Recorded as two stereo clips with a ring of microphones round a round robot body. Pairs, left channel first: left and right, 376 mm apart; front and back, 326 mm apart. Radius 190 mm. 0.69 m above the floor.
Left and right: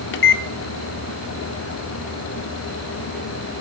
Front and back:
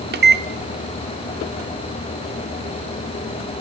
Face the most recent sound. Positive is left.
turn(degrees=135)